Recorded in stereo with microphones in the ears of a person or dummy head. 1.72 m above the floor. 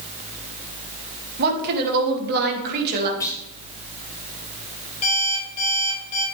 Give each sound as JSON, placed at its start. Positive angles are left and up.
{"t": 1.4, "sound": "a woman speaking", "side_deg": -55, "distance_m": 2.5}
{"t": 3.2, "sound": "a clunk", "side_deg": 15, "distance_m": 1.7}
{"t": 5.0, "sound": "an alarm clock", "side_deg": 35, "distance_m": 4.5}